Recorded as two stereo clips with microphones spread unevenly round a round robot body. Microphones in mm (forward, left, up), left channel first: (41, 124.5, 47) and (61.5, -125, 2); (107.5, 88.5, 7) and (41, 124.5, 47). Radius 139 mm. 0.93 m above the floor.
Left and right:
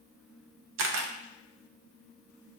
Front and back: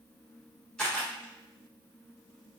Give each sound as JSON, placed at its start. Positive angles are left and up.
{"t": 0.8, "sound": "a camera shutter", "azimuth_deg": -90, "distance_m": 0.5}